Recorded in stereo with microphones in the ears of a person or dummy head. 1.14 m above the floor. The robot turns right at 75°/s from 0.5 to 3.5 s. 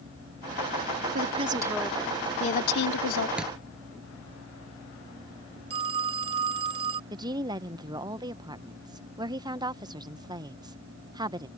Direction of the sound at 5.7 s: 40° right (ahead or behind).